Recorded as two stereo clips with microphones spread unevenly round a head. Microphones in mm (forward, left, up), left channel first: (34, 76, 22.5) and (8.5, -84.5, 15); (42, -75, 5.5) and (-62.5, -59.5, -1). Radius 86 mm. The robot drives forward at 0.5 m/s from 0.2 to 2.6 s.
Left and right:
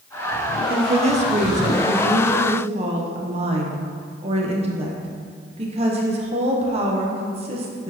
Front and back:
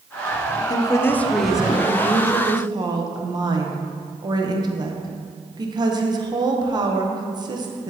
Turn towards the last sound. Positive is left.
turn(degrees=-145)